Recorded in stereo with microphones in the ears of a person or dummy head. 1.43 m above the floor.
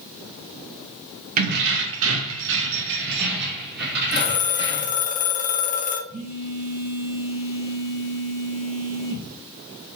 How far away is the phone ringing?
About 0.9 m.